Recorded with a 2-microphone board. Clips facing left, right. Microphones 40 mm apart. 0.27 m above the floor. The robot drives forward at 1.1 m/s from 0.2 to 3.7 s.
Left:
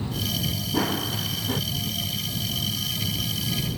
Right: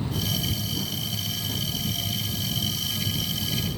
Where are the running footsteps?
65° left (ahead or behind); by 1.6 s 45° left (ahead or behind).